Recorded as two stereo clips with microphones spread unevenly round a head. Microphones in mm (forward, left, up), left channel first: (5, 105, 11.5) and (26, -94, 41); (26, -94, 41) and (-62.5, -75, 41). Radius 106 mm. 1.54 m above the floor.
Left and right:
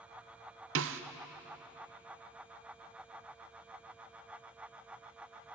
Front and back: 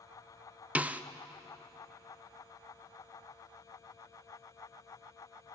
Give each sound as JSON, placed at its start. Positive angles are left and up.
{"t": 0.8, "sound": "a snare drum", "azimuth_deg": -115, "distance_m": 1.0}